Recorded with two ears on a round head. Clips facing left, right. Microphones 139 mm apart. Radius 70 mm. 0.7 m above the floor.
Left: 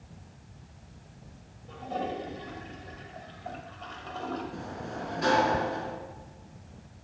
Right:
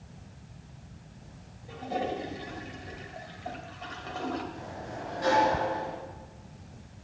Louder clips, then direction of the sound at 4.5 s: Left 2 dB; 65° left (ahead or behind).